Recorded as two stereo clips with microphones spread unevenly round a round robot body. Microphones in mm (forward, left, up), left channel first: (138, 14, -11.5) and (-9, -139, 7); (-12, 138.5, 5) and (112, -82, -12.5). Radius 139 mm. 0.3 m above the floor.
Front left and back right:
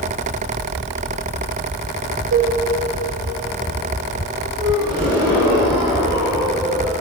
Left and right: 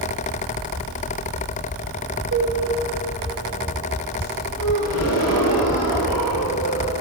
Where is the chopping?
No chopping in this recording.